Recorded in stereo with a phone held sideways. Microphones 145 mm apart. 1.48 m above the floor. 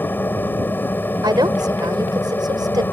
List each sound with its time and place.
0.0 s a machine running: 15° left (ahead or behind)
1.2 s a woman speaking: 30° right (ahead or behind)